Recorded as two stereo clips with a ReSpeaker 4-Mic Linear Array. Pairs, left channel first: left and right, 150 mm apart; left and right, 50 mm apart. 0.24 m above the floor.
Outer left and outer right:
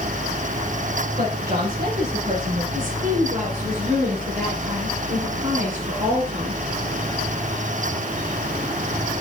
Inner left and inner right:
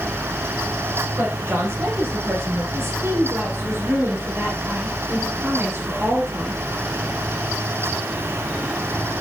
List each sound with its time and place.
1.2 s a woman speaking: 80° right, 7.5 m
2.7 s a woman speaking: 70° right (ahead or behind), 4.5 m